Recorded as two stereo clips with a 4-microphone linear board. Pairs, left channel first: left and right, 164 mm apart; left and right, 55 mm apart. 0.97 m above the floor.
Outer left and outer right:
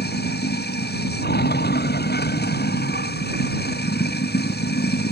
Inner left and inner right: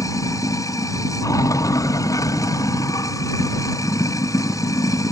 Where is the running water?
85° left.